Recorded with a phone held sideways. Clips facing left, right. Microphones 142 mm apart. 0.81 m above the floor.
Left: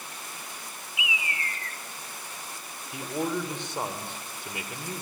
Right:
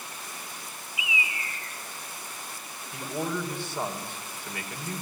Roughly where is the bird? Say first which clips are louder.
Even; left.